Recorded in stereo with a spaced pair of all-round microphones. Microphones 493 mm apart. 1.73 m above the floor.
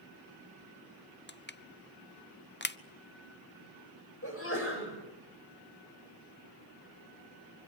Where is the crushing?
25° left (ahead or behind), 0.5 m.